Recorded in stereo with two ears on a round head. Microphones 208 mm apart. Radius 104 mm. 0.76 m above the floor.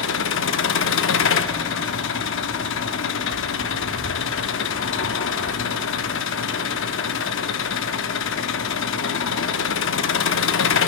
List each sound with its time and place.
0.0 s an engine running: 60° left (ahead or behind), 0.7 m